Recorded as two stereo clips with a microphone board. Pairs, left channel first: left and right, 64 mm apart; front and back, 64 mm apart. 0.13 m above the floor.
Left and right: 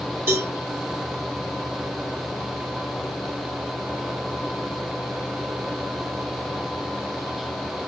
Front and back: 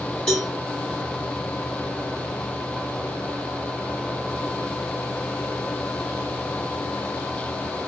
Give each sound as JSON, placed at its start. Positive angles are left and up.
{"t": 0.3, "sound": "a cowbell", "azimuth_deg": -65, "distance_m": 1.6}